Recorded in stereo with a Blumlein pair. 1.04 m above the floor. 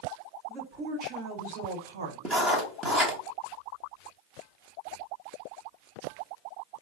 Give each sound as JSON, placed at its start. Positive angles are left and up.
{"t": 0.5, "sound": "a woman speaking", "azimuth_deg": -30, "distance_m": 1.5}
{"t": 2.2, "sound": "writing", "azimuth_deg": -20, "distance_m": 1.4}